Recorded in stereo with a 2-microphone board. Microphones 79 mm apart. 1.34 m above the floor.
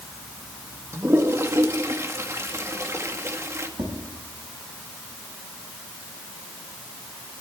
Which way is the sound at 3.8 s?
75° right (ahead or behind).